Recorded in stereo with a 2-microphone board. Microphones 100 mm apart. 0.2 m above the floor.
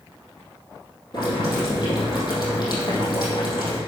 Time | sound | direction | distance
1.1 | boiling | 50° left (ahead or behind) | 4.5 m